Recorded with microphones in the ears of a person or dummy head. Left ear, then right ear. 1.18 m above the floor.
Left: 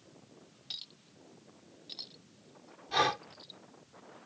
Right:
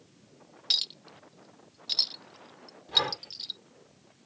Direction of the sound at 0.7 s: 70° right (ahead or behind).